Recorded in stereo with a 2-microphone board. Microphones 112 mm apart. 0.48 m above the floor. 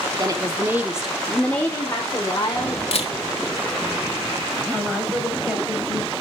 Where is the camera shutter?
65° left (ahead or behind), 1.2 m.